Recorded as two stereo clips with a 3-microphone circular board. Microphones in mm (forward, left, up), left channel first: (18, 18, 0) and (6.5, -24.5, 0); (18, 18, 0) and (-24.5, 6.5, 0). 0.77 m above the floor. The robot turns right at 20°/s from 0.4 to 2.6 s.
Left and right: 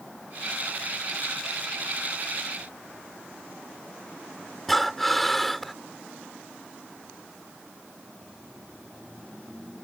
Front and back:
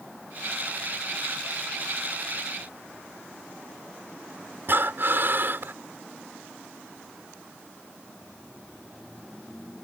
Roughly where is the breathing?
Behind.